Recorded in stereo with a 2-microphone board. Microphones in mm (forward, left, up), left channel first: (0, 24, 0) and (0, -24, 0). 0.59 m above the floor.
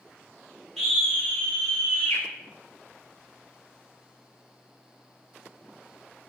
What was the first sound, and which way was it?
A scream, 10° left (ahead or behind).